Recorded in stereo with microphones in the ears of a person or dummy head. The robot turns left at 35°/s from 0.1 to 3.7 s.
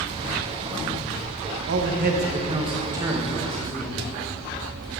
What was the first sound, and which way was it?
A man speaking, 120° right.